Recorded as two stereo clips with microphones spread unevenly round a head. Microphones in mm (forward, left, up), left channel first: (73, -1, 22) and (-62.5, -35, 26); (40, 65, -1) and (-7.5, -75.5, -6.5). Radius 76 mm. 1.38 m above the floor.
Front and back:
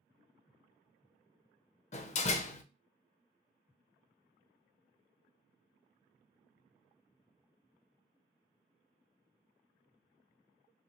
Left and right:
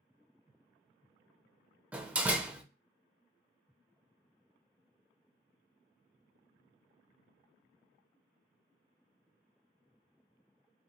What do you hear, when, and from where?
1.9 s a door slam: 30° right, 0.5 m